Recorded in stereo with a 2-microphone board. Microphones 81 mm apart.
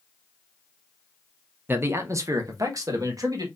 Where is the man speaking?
25° right (ahead or behind), 0.6 m; by 3.5 s 50° right (ahead or behind), 1.5 m.